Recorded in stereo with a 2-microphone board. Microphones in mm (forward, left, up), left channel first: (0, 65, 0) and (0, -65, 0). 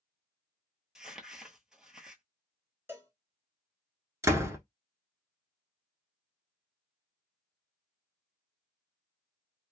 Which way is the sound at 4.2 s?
20° right (ahead or behind).